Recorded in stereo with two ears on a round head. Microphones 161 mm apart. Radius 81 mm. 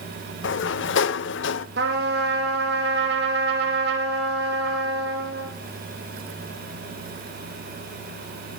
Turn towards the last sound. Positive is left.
turn(degrees=-55)  # may be behind; listen again after turning